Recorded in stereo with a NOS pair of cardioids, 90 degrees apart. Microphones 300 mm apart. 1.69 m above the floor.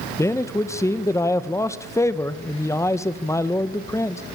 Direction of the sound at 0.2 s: 10° left.